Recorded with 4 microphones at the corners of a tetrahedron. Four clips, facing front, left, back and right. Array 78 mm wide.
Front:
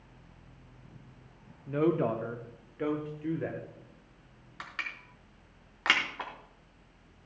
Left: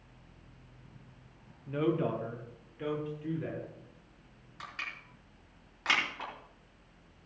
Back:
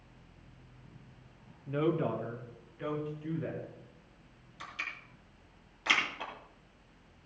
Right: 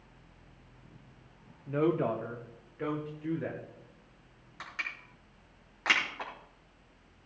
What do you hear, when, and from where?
1.7 s a woman speaking: 60° right, 0.9 m; by 3.6 s 15° right, 2.5 m
4.6 s crushing: 10° right, 5 m